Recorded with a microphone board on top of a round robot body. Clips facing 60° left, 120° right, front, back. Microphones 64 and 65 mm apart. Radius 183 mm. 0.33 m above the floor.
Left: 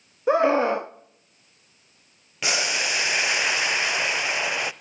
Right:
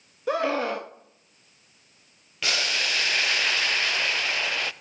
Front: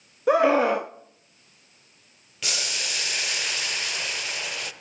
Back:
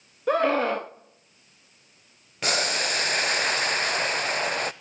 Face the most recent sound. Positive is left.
turn(degrees=130)